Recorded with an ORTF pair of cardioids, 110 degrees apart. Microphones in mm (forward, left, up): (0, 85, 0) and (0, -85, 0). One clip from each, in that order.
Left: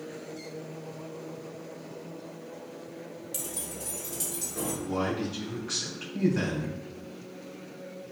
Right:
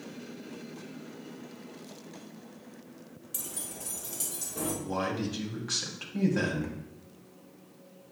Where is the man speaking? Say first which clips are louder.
Left 2 dB; 15° right, 3 m.